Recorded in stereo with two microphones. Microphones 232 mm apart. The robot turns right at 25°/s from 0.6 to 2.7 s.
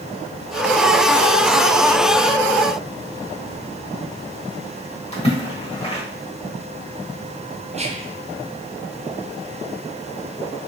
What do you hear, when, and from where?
5.1 s a splash: 25° left (ahead or behind), 1.2 m
7.7 s whispering: 30° right (ahead or behind), 0.6 m